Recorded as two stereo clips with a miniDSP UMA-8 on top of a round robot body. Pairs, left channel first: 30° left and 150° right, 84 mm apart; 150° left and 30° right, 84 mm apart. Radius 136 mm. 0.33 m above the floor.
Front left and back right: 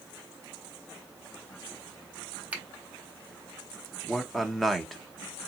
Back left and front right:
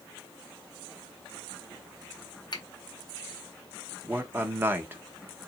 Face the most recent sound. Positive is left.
turn(degrees=-55)